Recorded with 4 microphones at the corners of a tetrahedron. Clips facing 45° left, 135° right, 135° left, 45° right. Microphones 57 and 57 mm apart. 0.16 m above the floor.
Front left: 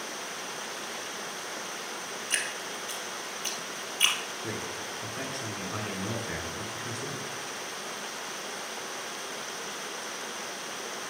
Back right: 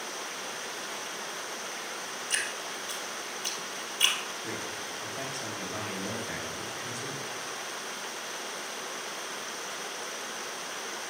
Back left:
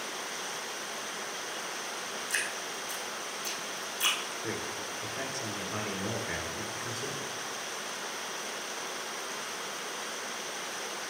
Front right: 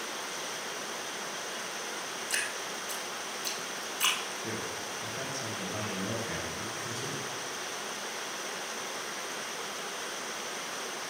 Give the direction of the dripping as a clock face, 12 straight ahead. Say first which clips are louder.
Even, back left 1 dB; 1 o'clock.